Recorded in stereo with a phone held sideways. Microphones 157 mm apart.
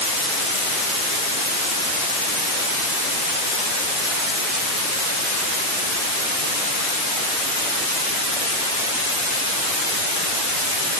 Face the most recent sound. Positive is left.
No sound to turn to.